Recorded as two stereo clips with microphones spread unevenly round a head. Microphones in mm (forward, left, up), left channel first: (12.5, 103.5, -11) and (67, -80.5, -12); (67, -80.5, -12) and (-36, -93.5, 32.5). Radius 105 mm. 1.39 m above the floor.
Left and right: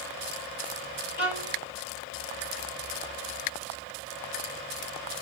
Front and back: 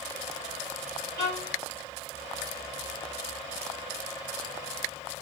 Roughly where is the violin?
Behind left.